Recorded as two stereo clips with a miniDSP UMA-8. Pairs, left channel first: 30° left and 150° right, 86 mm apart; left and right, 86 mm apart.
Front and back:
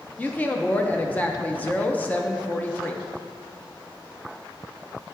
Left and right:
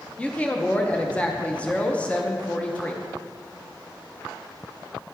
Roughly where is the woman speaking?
Ahead left.